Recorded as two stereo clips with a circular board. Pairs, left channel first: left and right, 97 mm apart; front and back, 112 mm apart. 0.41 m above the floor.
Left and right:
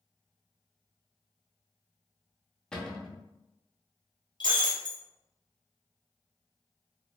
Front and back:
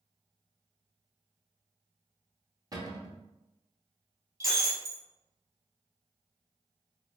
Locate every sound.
2.7 s a cupboard door: 165° left, 0.6 m
4.4 s breaking glass: 125° left, 1.0 m